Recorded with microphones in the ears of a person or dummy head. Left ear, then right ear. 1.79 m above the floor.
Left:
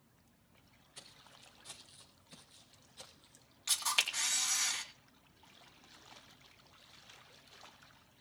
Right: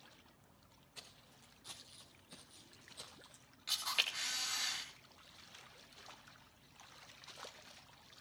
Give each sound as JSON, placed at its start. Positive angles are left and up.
{"t": 0.9, "sound": "footsteps", "side_deg": 0, "distance_m": 4.5}
{"t": 3.7, "sound": "a camera shutter", "side_deg": 30, "distance_m": 4.0}